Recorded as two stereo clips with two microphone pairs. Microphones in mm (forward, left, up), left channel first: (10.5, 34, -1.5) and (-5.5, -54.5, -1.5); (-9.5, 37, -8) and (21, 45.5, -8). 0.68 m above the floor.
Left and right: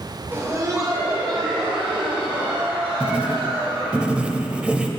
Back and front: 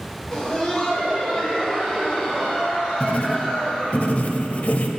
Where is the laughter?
115° right, 1.2 m; by 4.0 s 100° right, 4.5 m.